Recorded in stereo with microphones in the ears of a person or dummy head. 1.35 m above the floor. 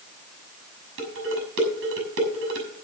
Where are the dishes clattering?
55° right (ahead or behind), 6 m.